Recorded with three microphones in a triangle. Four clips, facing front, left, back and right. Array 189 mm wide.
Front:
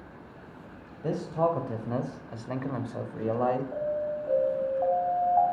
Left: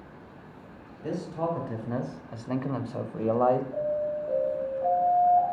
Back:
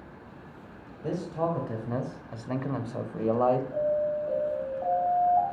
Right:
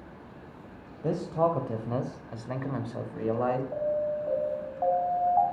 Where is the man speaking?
60° right, 1.2 m; by 3.6 s 115° left, 1.2 m.